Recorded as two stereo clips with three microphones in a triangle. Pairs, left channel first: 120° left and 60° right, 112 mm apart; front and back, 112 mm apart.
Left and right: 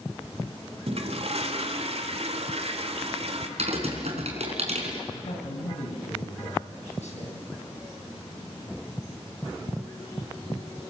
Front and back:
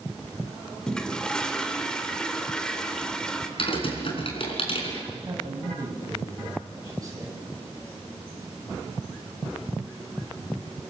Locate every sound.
0.9 s a toilet flushing: 85° right, 1.9 m
3.6 s typing on a keyboard: 40° right, 4.5 m
5.1 s a man speaking: 120° left, 7 m